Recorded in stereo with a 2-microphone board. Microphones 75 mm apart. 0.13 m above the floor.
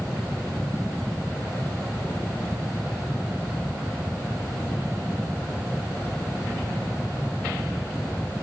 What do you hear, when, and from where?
Only background noise.